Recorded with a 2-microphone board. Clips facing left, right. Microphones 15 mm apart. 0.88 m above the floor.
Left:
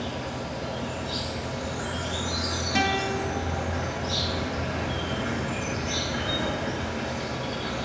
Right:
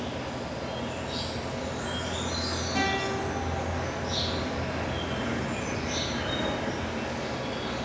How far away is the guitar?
About 1.0 m.